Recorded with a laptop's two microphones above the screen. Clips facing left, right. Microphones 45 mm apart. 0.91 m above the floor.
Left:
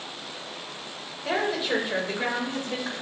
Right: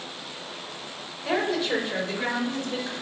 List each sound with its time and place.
1.2 s a woman speaking: centre (ahead or behind), 3.5 m; by 2.9 s 35° left (ahead or behind), 3.5 m